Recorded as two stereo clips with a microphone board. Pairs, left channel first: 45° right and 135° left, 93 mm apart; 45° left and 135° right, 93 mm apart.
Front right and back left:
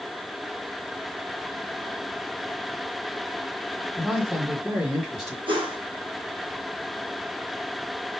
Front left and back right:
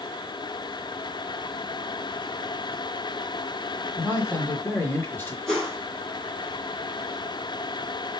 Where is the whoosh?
130° left, 3 m.